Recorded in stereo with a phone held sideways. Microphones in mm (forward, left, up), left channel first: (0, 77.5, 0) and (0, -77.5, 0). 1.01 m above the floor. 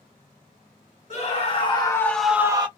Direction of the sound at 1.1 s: 45° left (ahead or behind).